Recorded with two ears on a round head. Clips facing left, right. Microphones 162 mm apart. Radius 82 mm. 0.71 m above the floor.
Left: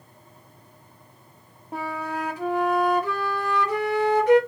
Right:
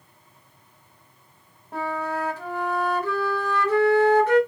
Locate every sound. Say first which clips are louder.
1.7 s a flute: right 2 dB; 15° left (ahead or behind), 0.9 m